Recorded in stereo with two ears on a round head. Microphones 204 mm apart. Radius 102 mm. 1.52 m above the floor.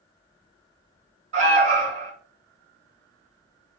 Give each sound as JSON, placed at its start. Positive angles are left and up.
{"t": 1.3, "sound": "an alarm", "side_deg": -30, "distance_m": 2.0}